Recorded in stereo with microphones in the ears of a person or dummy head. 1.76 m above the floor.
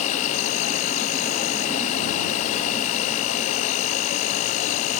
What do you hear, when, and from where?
0.0 s an insect: 45° left (ahead or behind)